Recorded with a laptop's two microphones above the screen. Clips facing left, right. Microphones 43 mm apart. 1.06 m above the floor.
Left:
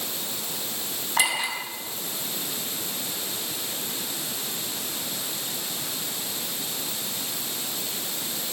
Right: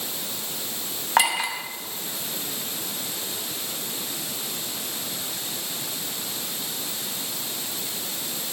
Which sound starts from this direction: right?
A clink, at 1.2 s.